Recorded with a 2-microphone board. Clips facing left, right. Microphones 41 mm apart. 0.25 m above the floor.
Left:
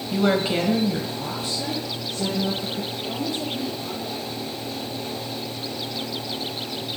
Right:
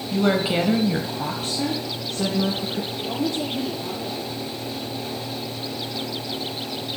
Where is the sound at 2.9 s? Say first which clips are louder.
Right 2 dB; 60° right (ahead or behind), 5.5 m.